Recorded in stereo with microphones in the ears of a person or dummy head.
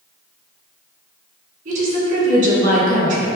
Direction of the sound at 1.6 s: 45° right (ahead or behind).